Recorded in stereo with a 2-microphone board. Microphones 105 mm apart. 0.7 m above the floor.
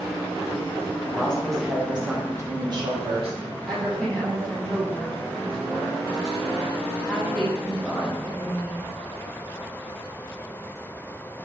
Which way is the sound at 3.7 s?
5° left (ahead or behind).